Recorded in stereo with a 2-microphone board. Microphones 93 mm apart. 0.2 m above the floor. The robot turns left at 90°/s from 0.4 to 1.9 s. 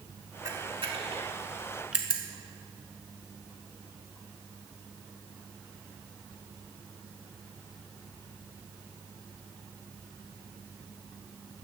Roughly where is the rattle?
No rattle in this recording.